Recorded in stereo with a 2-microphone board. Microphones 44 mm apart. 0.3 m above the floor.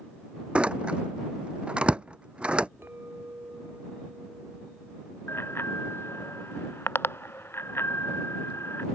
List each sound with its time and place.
0.6 s a door slam: 25° right (ahead or behind)
2.8 s a clink: 55° right (ahead or behind)
5.3 s a bicycle bell: 60° left (ahead or behind)